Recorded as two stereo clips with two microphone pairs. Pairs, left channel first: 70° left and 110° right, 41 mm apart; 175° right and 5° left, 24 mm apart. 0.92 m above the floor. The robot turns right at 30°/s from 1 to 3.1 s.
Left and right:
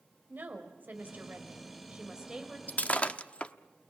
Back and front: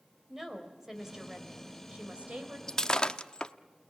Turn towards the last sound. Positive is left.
turn(degrees=130)